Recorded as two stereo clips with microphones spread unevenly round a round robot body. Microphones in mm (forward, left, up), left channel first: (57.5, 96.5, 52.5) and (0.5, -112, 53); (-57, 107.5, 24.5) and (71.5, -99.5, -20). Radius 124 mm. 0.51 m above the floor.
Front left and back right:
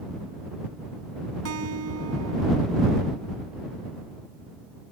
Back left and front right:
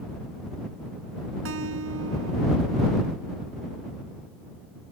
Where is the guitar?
95° right.